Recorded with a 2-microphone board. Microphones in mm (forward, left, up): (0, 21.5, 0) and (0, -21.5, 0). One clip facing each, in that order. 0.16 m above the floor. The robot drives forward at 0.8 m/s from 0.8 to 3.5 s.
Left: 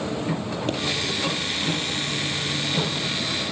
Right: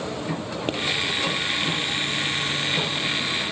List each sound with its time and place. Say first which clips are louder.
0.7 s a pop: right 1 dB; 25° right (ahead or behind), 4 m